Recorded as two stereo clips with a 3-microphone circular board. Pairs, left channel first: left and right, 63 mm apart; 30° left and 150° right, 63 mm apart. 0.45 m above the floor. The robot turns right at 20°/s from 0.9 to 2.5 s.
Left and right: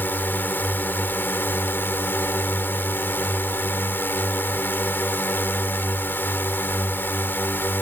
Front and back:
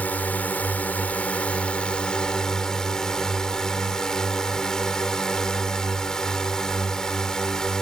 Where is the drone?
70° left; by 7.8 s 100° left.